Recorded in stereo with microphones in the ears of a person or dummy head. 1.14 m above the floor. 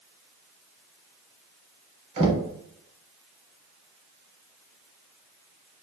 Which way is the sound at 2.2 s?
40° right (ahead or behind).